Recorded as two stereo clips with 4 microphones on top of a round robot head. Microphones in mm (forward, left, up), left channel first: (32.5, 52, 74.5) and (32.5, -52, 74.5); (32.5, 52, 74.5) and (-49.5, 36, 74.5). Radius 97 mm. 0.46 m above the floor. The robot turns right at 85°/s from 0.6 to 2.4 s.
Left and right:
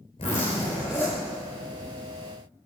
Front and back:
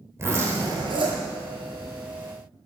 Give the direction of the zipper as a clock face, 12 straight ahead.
8 o'clock.